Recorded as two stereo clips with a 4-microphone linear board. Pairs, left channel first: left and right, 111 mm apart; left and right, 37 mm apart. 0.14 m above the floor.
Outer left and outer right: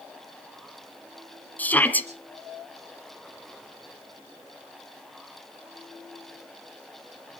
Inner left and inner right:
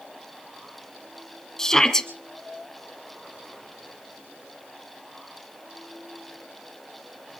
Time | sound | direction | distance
1.6 | a shout | 15° left (ahead or behind) | 2 m